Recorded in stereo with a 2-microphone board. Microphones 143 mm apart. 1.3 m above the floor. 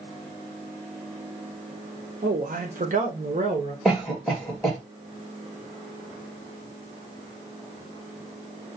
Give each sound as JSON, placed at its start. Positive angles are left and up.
{"t": 2.2, "sound": "a man speaking", "side_deg": -85, "distance_m": 0.9}
{"t": 3.9, "sound": "a cough", "side_deg": 0, "distance_m": 2.0}